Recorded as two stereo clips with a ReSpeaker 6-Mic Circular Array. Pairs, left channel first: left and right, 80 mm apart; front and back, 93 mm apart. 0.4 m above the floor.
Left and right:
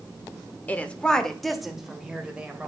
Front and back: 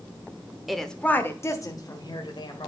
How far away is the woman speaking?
About 0.9 m.